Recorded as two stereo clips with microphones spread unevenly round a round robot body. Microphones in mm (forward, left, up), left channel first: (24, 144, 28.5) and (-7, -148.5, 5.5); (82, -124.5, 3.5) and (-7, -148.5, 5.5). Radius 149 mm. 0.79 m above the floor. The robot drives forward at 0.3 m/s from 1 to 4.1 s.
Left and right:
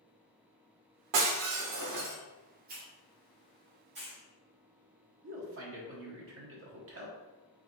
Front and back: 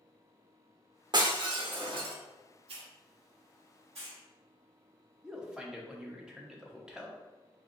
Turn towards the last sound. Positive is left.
turn(degrees=-85)